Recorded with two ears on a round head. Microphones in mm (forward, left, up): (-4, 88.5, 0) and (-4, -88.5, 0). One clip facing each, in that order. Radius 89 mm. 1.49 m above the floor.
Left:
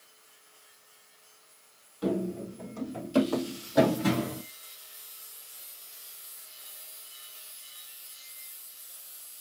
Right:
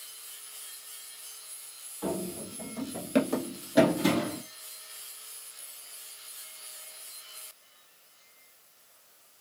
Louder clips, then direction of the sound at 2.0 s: Left 4 dB; 20° left (ahead or behind).